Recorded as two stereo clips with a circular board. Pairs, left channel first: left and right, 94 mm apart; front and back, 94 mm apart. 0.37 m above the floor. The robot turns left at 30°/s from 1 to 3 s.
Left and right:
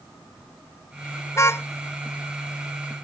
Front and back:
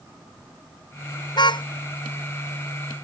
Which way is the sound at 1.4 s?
35° left.